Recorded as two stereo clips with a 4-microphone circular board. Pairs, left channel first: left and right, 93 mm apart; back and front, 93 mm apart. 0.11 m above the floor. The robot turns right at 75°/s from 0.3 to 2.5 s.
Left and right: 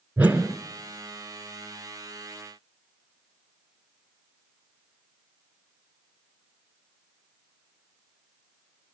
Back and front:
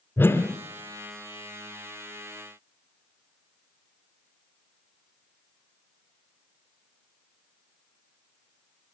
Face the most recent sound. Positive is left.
turn(degrees=20)